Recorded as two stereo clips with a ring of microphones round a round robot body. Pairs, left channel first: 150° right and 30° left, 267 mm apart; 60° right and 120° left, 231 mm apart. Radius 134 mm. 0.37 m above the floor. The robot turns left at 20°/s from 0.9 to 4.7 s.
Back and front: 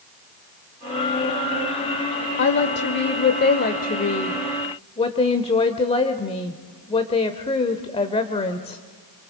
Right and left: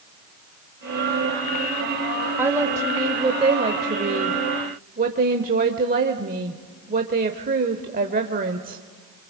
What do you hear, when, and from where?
2.4 s a woman speaking: 160° right, 1.0 m; by 8.8 s 150° left, 1.0 m